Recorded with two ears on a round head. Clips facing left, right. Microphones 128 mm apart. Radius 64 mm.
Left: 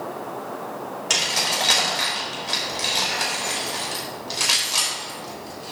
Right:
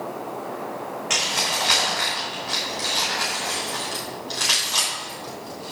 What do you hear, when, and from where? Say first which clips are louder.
1.1 s keys jangling: left 1 dB; 45° left (ahead or behind), 4 m; by 5.7 s centre (ahead or behind), 4 m